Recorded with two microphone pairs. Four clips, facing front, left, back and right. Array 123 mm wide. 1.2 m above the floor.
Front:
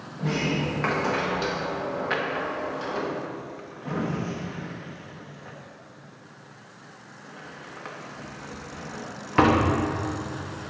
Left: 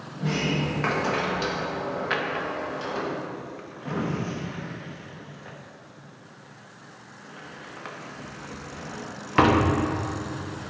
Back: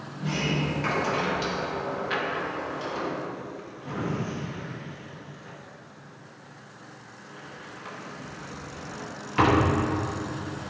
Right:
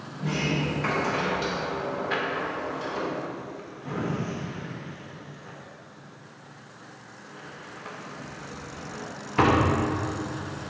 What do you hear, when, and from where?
0.2 s a sliding door: 30° left, 1.2 m
2.1 s a drawer: 50° left, 0.8 m